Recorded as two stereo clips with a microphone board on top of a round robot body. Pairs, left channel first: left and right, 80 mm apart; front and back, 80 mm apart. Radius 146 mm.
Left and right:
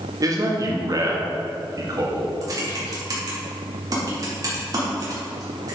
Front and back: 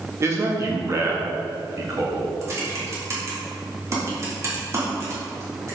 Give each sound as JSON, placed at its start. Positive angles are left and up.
{"t": 0.2, "sound": "a man speaking", "azimuth_deg": -130, "distance_m": 2.0}
{"t": 2.4, "sound": "typing on a keyboard", "azimuth_deg": -130, "distance_m": 3.5}